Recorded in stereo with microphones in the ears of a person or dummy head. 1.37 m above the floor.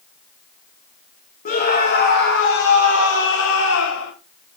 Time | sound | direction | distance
1.4 | a scream | 45° left (ahead or behind) | 1.3 m